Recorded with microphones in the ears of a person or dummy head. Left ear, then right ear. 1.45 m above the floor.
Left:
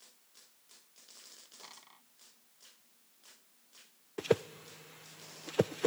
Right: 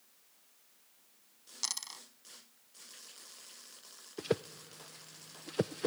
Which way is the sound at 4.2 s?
25° left (ahead or behind).